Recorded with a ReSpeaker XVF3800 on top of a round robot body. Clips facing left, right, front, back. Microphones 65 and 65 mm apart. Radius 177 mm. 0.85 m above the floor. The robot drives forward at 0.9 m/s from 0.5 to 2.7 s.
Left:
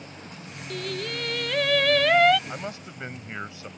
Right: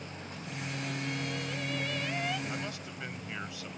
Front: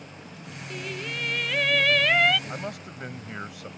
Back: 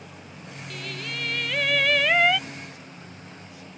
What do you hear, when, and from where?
0.7 s singing: 70° left; by 2.4 s 100° left
2.5 s a man speaking: 25° left; by 3.7 s 30° left